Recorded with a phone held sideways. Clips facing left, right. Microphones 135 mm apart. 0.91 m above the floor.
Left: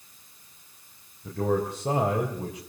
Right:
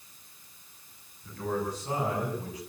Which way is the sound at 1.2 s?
80° left.